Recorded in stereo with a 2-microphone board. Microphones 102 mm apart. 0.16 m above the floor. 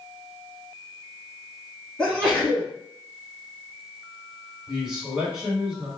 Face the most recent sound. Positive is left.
turn(degrees=-5)  # may be behind; listen again after turning